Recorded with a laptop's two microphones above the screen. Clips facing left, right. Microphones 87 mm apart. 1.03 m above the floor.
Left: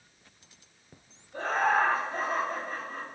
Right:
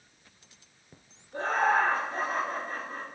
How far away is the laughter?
About 0.8 m.